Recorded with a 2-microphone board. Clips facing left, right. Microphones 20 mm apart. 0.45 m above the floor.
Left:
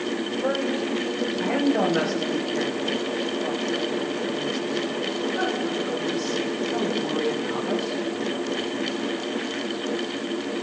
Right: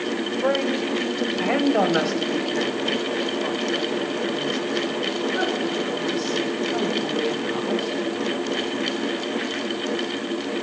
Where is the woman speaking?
45° right (ahead or behind), 1.4 m; by 8.0 s 55° right (ahead or behind), 8 m.